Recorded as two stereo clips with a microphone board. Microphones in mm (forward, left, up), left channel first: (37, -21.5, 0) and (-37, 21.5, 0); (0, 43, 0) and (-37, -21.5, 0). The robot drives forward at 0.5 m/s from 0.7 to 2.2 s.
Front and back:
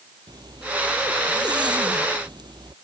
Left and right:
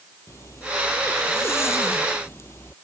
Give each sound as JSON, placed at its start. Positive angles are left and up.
{"t": 0.3, "sound": "a zipper", "azimuth_deg": 115}